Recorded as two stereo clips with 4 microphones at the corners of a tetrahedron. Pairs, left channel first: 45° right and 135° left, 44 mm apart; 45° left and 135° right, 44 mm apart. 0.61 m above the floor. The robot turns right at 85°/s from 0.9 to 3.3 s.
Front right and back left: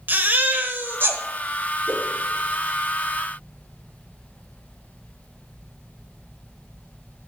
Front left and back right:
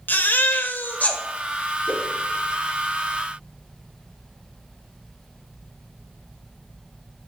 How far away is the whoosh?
About 2 m.